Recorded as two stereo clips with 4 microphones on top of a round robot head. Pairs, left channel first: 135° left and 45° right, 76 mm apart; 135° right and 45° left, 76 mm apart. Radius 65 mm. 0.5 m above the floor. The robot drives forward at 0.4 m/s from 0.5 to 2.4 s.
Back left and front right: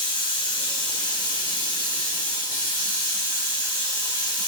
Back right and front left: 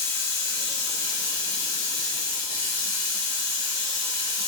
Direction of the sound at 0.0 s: 165° left.